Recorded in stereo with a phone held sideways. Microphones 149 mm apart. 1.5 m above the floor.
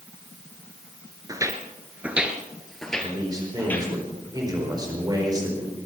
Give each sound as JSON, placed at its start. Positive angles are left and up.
{"t": 1.3, "sound": "footsteps", "side_deg": -25, "distance_m": 1.5}
{"t": 3.0, "sound": "a man speaking", "side_deg": -25, "distance_m": 4.5}